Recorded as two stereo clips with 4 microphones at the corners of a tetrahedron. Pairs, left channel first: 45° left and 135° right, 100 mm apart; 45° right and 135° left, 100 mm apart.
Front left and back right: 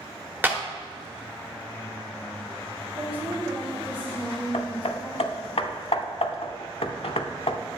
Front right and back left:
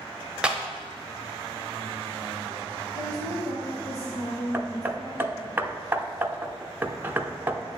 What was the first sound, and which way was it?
A clap, 165° right.